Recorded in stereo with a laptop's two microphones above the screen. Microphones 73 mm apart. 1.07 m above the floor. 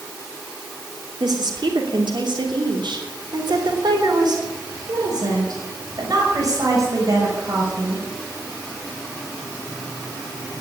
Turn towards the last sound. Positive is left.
turn(degrees=-45)  # may be behind; listen again after turning